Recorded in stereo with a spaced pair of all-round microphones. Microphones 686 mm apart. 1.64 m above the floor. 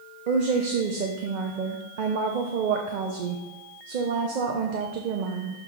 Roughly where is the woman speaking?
Right.